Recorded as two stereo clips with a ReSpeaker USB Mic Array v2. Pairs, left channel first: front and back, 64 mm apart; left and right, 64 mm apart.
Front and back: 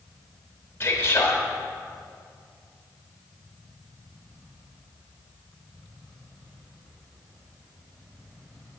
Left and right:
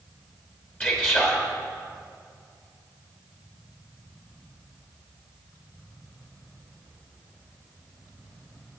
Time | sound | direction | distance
0.8 | a man speaking | 35° left | 1.2 m